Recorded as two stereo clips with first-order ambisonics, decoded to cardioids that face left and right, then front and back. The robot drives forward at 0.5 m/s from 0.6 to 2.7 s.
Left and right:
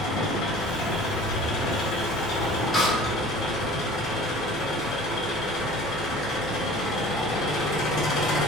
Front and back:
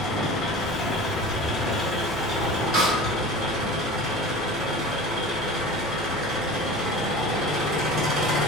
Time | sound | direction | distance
0.0 | an engine running | 50° left | 0.9 m
2.7 | a snare drum | 170° left | 1.4 m